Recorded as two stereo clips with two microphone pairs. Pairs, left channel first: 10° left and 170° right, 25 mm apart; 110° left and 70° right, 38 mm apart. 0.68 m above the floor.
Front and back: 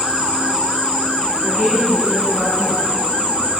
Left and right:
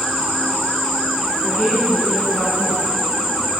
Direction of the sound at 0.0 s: 170° right.